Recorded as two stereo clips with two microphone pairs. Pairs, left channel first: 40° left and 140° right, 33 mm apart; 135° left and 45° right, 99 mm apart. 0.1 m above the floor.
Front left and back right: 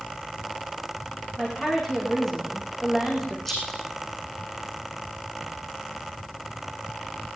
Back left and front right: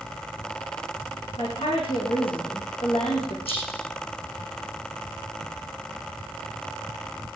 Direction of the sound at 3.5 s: 120° left.